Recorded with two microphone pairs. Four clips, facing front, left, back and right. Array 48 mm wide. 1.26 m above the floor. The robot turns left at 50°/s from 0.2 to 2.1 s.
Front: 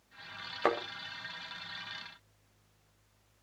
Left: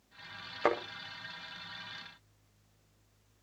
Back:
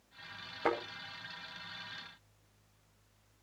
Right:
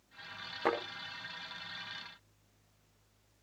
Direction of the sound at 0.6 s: 35° left.